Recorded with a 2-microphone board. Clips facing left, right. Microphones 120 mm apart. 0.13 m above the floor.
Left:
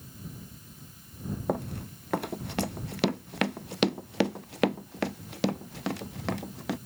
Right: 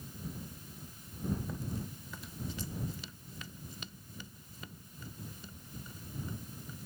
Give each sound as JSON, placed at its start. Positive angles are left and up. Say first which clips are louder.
{"t": 1.5, "sound": "running footsteps", "louder": "left 9 dB", "side_deg": 65}